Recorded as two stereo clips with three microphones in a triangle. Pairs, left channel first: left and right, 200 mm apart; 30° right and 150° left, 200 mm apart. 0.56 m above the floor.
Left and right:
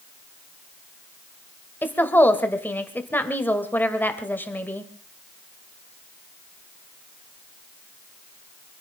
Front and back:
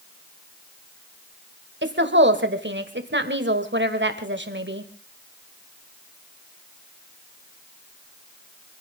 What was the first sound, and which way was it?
A woman speaking, 170° left.